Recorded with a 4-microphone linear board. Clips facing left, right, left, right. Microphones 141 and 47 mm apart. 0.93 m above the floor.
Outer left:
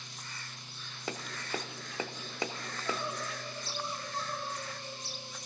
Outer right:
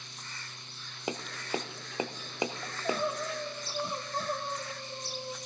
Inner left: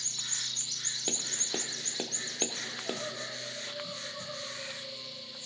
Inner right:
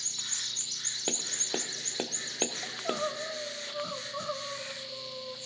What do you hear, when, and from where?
1.1 s tapping: 20° right (ahead or behind), 0.5 m
2.6 s crying: 60° right (ahead or behind), 0.8 m